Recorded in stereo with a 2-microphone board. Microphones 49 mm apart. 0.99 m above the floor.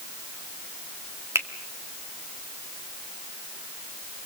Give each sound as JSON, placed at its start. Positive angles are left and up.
{"t": 1.4, "sound": "a finger snap", "side_deg": -75, "distance_m": 1.7}